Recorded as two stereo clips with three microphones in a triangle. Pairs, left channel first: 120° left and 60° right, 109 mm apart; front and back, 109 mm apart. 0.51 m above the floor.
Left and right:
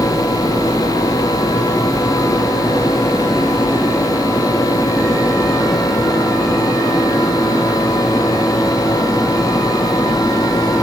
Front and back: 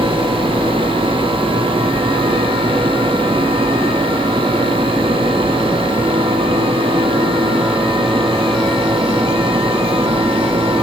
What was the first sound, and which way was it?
Only background noise.